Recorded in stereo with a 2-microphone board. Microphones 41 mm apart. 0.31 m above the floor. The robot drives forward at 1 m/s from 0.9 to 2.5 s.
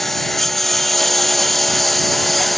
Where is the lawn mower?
10° left (ahead or behind); by 2.6 s 5° left (ahead or behind).